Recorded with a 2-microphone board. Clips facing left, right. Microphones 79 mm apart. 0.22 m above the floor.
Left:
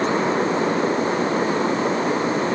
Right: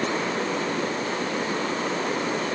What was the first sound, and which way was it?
Only background noise.